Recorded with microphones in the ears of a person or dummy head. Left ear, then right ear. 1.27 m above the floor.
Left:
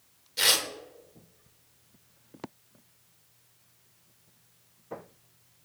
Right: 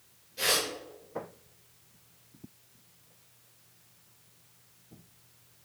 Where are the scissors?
No scissors in this recording.